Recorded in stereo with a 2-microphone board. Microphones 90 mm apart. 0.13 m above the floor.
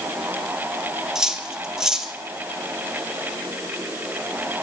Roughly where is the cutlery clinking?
Centre.